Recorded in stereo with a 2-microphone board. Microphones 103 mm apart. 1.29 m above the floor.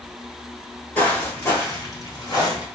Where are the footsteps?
15° left (ahead or behind), 1.3 m; by 2.7 s 40° left (ahead or behind), 1.9 m.